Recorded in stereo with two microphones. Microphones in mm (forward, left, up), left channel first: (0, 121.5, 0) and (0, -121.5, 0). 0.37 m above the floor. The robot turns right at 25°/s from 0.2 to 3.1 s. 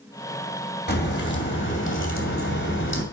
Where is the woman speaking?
I don't hear a woman speaking.